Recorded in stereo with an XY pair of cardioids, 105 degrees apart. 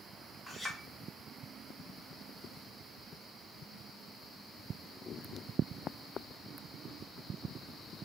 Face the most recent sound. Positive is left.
turn(degrees=10)